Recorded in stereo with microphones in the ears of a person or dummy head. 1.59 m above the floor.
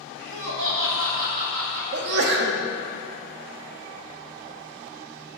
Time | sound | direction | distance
0.2 | laughter | 60° right (ahead or behind) | 1.4 m
1.9 | a sneeze | 55° right (ahead or behind) | 0.7 m